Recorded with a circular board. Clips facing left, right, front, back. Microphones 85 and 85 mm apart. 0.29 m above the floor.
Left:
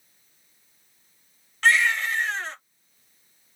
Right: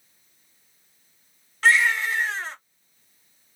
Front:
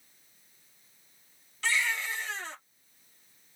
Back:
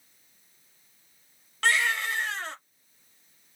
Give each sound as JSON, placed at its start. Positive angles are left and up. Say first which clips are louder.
{"t": 1.6, "sound": "a baby crying", "louder": "right 1 dB, back 5 dB", "azimuth_deg": -175, "distance_m": 1.4}